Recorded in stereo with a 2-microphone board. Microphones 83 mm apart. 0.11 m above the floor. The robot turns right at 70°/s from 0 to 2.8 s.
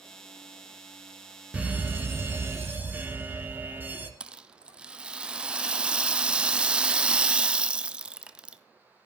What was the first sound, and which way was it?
A fire alarm, 20° right (ahead or behind).